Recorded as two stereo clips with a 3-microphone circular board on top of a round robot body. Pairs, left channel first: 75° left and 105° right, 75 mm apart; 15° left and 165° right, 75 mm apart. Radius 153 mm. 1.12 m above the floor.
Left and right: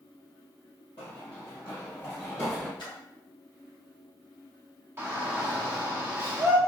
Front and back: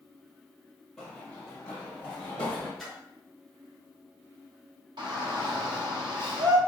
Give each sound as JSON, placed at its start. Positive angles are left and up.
{"t": 1.0, "sound": "running footsteps", "azimuth_deg": 100, "distance_m": 1.2}
{"t": 2.8, "sound": "a splash", "azimuth_deg": 105, "distance_m": 1.0}
{"t": 5.0, "sound": "a shout", "azimuth_deg": -165, "distance_m": 1.5}